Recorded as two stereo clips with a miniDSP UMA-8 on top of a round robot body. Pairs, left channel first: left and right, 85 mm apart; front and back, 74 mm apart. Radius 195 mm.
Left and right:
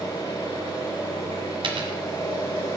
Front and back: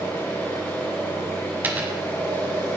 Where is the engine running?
60° left, 5 m.